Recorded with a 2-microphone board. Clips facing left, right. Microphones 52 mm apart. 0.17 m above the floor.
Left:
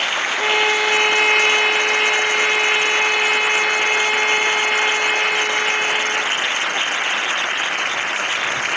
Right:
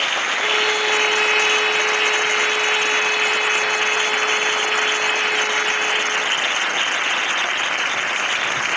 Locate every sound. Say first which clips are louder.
0.4 s a violin: left 4 dB; 45° left (ahead or behind), 3 m